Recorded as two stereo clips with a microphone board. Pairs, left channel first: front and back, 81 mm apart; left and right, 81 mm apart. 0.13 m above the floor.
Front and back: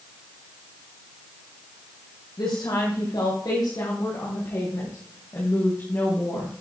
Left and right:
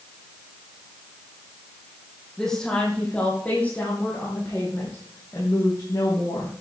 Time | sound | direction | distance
2.4 | a woman speaking | 5° left | 4 m